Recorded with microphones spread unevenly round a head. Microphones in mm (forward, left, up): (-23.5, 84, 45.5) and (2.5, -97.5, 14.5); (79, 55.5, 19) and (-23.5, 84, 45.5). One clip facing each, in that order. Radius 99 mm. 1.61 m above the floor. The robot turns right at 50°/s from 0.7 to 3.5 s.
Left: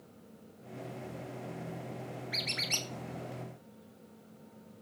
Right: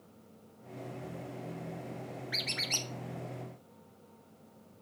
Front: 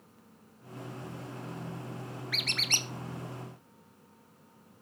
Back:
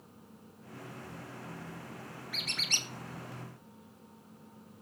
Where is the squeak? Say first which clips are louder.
Even, front 3 dB; straight ahead, 1.3 m; by 2.9 s 30° left, 1.3 m.